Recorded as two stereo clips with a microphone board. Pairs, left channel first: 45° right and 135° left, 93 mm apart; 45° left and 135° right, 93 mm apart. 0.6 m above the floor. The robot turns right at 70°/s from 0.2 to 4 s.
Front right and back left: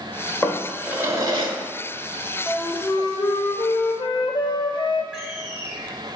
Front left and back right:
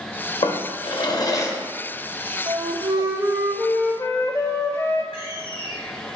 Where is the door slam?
55° left, 1.6 m.